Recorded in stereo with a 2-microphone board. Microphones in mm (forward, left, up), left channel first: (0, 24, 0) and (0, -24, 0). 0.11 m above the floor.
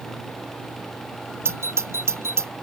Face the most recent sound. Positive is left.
turn(degrees=-60)  # may be behind; listen again after turning